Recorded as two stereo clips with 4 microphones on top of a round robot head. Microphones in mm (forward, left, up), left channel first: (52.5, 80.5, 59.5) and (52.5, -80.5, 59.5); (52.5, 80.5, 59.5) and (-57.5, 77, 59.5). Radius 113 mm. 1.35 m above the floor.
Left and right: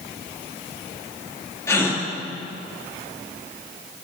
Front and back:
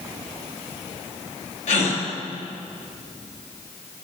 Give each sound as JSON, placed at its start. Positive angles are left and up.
{"t": 1.7, "sound": "a gasp", "azimuth_deg": 15, "distance_m": 3.0}